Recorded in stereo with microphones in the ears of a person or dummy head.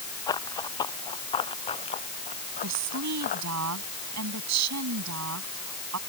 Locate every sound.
0.3 s running footsteps: 20° left (ahead or behind); by 3.5 s 40° left (ahead or behind)
2.6 s a woman speaking: 90° right